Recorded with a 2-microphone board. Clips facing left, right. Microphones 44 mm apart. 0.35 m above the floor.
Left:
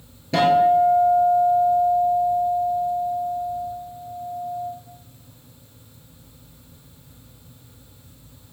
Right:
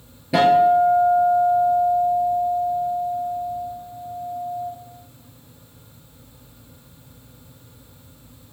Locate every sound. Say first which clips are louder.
0.3 s a guitar: right 1 dB; 10° right (ahead or behind), 4.5 m